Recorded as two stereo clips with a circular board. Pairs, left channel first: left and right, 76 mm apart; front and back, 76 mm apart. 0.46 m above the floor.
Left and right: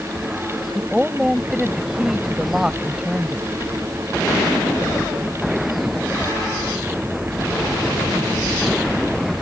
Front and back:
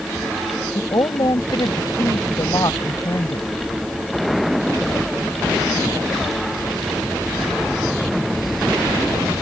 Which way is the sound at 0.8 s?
10° right.